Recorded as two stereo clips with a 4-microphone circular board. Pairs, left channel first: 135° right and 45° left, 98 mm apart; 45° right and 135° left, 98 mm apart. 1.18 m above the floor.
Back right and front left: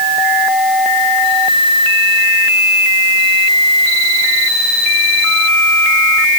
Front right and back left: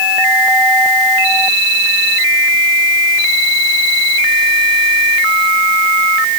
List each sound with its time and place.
Only background noise.